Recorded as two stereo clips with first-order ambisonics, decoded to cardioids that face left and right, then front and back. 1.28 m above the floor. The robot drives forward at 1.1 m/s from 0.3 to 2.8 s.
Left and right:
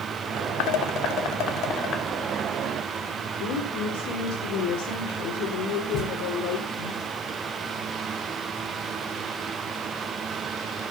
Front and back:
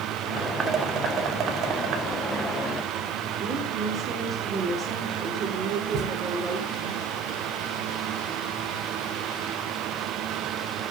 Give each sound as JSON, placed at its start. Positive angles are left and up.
{"t": 0.6, "sound": "dishes clattering", "azimuth_deg": 110, "distance_m": 1.4}
{"t": 3.4, "sound": "a woman speaking", "azimuth_deg": 120, "distance_m": 4.0}
{"t": 5.9, "sound": "a thud", "azimuth_deg": 135, "distance_m": 9.0}